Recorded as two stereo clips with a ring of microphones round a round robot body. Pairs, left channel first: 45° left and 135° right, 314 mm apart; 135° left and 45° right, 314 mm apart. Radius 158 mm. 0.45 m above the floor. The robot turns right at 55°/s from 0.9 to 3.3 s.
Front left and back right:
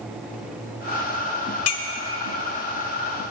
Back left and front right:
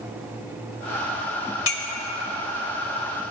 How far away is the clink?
About 1.0 m.